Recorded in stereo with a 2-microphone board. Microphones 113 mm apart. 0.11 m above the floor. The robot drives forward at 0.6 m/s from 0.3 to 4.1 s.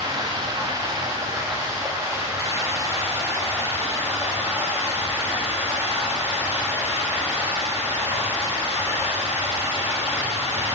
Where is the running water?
35° right (ahead or behind), 2.5 m; by 10.8 s 20° right (ahead or behind), 4.5 m.